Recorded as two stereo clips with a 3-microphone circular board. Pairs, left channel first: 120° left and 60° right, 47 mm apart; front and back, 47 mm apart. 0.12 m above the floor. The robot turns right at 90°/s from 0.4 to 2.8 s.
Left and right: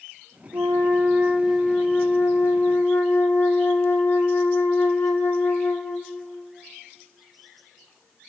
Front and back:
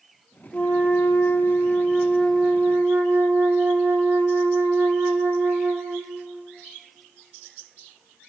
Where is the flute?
65° right, 1.6 m; by 6.2 s 140° left, 1.6 m.